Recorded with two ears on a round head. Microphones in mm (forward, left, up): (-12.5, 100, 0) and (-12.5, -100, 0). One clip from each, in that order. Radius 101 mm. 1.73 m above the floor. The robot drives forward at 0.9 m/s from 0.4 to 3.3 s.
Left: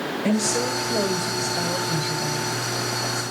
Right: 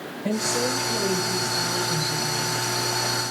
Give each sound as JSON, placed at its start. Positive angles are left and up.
{"t": 0.2, "sound": "a woman speaking", "side_deg": 60, "distance_m": 8.5}